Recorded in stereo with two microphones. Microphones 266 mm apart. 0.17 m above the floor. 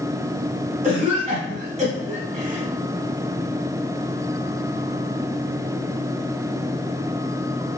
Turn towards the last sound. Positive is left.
turn(degrees=-30)  # may be behind; listen again after turning